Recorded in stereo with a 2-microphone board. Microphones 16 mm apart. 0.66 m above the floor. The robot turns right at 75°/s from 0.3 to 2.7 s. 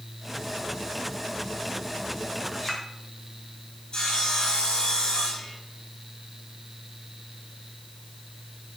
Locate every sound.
2.5 s a clink: 5° left (ahead or behind), 3 m; by 2.8 s 20° left (ahead or behind), 3 m
3.9 s sawing: 65° left (ahead or behind), 4 m